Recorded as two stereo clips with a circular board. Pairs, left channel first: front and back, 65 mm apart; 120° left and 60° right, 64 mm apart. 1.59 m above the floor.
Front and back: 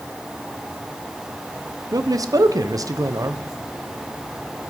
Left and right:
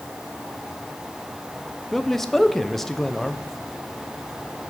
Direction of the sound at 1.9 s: 155° right.